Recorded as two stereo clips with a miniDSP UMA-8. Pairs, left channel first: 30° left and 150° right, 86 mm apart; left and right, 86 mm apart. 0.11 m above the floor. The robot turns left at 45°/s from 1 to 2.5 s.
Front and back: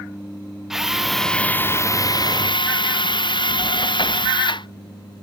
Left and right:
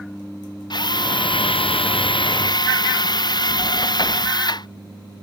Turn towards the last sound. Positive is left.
turn(degrees=55)